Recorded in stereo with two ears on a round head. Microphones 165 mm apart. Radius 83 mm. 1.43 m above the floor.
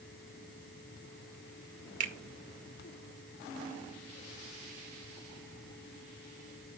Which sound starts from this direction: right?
A finger snap, at 2.0 s.